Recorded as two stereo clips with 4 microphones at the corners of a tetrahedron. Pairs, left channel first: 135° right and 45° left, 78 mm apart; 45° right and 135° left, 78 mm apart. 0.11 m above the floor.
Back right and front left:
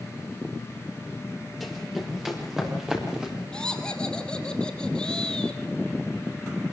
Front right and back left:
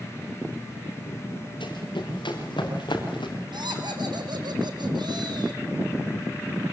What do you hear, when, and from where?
1.6 s running footsteps: 45° right, 6.5 m; by 3.4 s 35° right, 6 m
3.5 s laughter: 145° left, 3.5 m